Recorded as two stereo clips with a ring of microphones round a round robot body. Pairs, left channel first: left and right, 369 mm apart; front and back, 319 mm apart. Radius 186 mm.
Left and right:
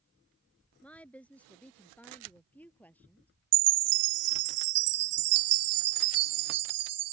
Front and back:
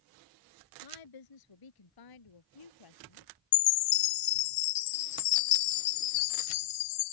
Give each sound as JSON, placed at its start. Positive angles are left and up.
{"t": 0.8, "sound": "a woman speaking", "azimuth_deg": 5}
{"t": 3.5, "sound": "a chime", "azimuth_deg": -35}